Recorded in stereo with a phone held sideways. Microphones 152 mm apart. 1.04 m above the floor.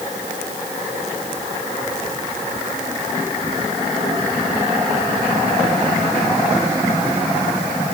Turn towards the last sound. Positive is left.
No sound to turn to.